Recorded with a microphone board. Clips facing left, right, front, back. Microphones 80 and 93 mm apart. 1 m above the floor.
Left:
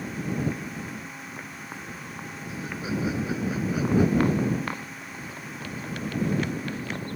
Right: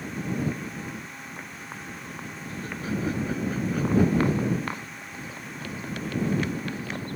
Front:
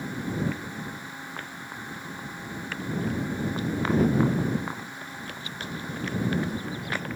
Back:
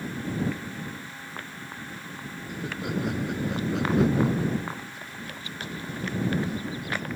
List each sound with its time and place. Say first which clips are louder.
2.5 s laughter: even, back 2 dB; 170° left; by 4.5 s 175° left